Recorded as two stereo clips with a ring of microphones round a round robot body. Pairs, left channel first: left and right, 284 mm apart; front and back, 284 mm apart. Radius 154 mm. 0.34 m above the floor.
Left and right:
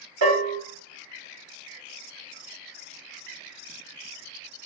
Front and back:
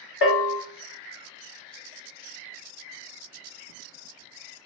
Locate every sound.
0.2 s a bell: 40° right, 0.9 m